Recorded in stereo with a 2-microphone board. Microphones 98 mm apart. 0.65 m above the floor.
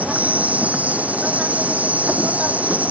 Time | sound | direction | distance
0.0 | an insect | 15° right (ahead or behind) | ?